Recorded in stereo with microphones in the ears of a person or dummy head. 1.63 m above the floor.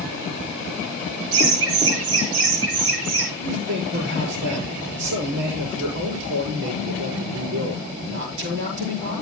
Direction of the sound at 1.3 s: 75° right (ahead or behind).